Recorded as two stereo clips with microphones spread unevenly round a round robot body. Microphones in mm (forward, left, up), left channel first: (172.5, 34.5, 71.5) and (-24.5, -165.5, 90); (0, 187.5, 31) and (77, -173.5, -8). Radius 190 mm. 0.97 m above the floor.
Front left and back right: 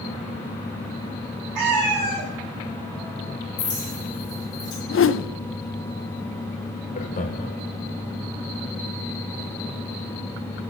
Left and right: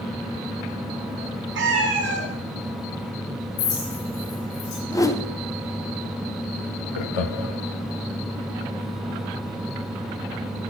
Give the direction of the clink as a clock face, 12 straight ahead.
9 o'clock.